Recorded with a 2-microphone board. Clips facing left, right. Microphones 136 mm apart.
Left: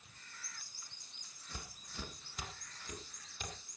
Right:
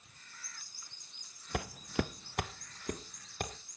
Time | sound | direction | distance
1.5 | footsteps | 70° right (ahead or behind) | 0.6 m